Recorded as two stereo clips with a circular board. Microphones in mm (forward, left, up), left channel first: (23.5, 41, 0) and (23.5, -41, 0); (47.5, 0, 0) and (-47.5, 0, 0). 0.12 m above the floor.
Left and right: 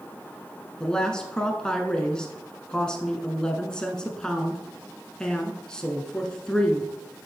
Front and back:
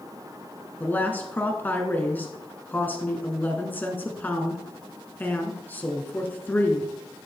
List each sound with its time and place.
0.8 s a woman speaking: 30° left, 1.1 m